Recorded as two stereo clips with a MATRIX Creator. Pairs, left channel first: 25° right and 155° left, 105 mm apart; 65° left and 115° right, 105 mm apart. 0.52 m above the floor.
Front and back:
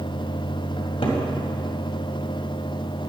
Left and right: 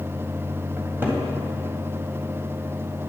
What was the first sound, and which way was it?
A cupboard door, 40° right.